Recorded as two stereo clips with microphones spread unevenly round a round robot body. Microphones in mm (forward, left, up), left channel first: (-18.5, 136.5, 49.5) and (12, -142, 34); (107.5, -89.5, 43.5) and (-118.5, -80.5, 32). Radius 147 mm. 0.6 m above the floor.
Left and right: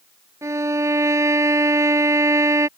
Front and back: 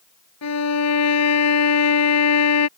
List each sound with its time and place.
0.4 s a violin: 5° right